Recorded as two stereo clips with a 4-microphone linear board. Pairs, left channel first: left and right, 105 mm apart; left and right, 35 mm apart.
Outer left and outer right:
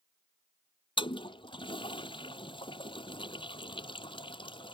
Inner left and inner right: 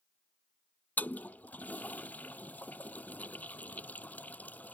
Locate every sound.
1.0 s a toilet flushing: 55° left (ahead or behind)